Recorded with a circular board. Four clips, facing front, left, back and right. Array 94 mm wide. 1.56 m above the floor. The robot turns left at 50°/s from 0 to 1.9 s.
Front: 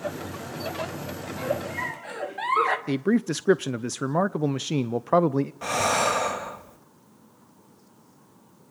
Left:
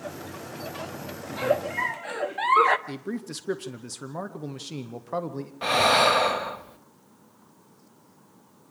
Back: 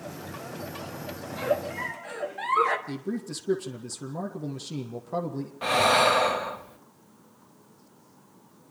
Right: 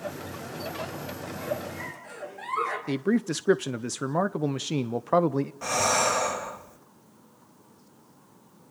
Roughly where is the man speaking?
Ahead right.